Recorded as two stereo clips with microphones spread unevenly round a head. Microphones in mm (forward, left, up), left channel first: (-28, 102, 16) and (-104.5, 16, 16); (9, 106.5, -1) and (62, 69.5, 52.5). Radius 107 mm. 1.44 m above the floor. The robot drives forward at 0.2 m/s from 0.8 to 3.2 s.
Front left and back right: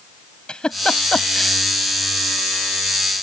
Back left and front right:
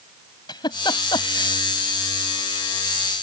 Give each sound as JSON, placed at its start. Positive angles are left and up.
{"t": 0.5, "sound": "a giggle", "azimuth_deg": 130}